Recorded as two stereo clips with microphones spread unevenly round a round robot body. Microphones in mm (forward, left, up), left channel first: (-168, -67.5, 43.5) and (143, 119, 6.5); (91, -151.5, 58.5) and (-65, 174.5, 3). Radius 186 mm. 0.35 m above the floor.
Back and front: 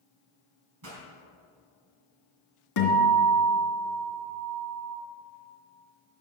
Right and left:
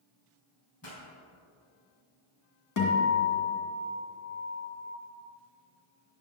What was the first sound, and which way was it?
A pop, 15° right.